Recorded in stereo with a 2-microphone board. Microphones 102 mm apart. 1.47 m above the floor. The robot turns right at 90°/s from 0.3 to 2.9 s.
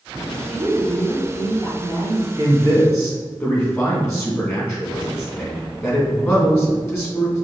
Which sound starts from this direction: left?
A man speaking, at 2.4 s.